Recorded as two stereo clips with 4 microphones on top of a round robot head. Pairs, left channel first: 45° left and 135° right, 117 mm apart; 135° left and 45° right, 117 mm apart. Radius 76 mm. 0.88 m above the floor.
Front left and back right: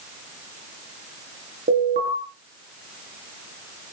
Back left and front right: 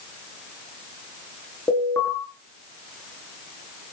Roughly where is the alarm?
Behind right.